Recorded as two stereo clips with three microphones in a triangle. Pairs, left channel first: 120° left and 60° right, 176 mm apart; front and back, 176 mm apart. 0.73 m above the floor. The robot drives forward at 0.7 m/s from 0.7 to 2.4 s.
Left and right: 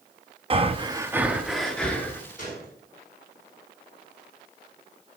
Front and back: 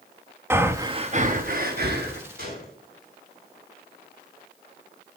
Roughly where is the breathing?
Right.